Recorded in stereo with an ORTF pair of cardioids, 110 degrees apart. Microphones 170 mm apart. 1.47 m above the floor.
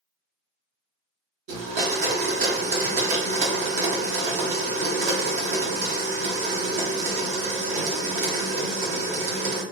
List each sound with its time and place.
1.5 s a blender: 50° right, 1.2 m